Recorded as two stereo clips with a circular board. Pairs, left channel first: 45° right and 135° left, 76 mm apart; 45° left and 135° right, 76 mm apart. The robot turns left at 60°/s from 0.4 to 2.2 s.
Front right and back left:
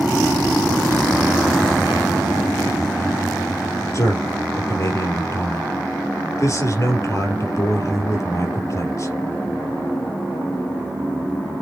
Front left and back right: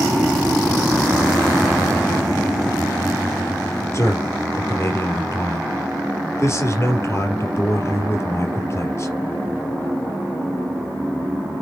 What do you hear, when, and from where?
3.9 s a man speaking: straight ahead, 3.5 m